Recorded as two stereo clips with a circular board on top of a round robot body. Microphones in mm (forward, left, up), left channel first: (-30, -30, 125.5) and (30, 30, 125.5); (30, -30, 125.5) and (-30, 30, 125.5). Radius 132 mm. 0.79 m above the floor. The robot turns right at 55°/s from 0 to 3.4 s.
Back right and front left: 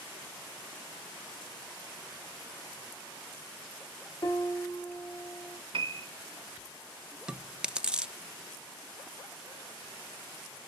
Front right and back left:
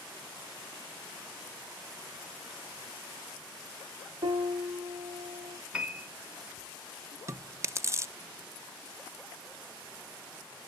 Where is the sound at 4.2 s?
175° left, 0.9 m.